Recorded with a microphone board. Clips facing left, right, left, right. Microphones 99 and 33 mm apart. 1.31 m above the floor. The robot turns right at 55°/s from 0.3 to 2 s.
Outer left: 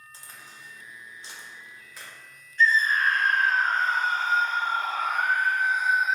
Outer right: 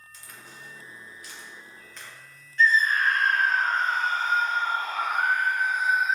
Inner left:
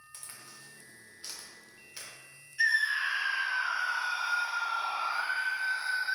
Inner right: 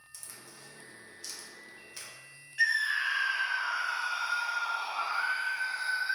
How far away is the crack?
About 0.6 m.